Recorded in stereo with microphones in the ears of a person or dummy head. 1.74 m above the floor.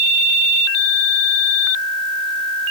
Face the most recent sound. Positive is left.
No sound to turn to.